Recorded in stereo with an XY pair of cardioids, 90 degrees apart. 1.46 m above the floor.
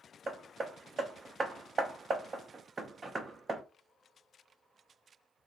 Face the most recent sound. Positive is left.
turn(degrees=-40)